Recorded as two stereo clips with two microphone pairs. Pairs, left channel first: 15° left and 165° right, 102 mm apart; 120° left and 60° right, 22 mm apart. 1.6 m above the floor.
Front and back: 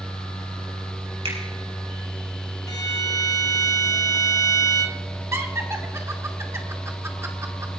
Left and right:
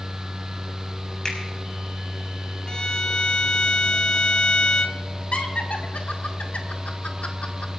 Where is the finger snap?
Straight behind, 4.5 m.